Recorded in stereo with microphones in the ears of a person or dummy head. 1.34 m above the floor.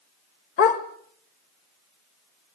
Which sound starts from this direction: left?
A dog barking, at 0.6 s.